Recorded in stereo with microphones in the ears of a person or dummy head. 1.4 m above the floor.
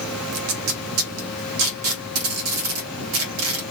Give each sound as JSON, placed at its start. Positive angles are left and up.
{"t": 0.3, "sound": "tape being pulled", "side_deg": -80, "distance_m": 1.3}